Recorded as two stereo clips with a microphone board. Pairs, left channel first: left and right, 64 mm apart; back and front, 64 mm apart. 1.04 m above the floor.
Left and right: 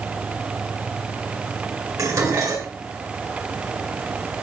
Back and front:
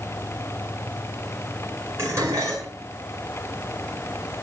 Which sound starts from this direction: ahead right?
Dishes clattering, at 2.0 s.